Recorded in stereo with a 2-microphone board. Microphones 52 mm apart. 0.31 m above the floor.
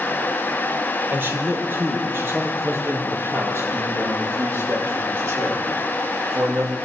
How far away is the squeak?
I don't hear a squeak.